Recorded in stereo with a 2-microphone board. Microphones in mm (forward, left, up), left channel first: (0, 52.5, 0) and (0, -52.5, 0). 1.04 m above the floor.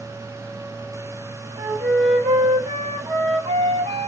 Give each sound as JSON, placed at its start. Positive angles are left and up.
{"t": 1.6, "sound": "a flute", "side_deg": -85, "distance_m": 0.9}